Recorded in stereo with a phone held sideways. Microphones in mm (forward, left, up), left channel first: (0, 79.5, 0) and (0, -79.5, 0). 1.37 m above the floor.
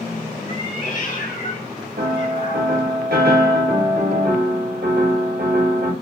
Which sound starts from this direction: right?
A piano, at 2.0 s.